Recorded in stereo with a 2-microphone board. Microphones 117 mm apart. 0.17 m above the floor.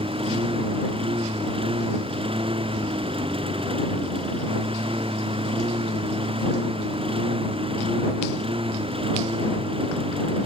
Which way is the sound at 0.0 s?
50° right (ahead or behind).